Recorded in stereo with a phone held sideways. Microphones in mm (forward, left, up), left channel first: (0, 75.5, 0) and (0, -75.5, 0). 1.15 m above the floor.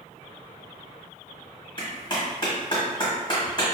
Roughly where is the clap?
Left.